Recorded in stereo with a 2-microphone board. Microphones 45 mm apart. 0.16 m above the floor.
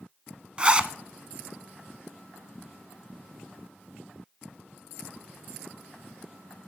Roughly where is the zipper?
Right.